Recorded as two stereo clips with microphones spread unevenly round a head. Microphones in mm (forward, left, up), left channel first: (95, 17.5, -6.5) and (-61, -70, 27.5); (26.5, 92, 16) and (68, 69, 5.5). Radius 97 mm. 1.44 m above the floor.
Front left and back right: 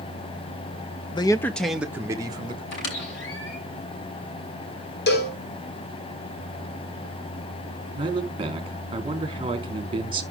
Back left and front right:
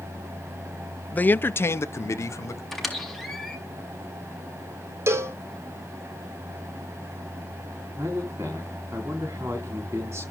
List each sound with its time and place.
1.1 s a man speaking: 85° left, 0.9 m; by 2.6 s 140° left, 1.6 m
2.7 s a squeak: 65° left, 6.5 m
5.1 s a cowbell: 5° right, 3 m
8.0 s a man speaking: 90° right, 3.5 m